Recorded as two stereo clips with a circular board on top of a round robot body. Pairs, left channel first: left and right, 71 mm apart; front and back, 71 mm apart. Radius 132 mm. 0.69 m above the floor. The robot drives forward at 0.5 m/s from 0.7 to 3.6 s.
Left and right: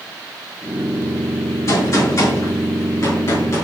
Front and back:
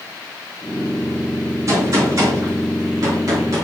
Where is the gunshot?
135° left, 7 m; by 3.6 s 140° left, 7.5 m.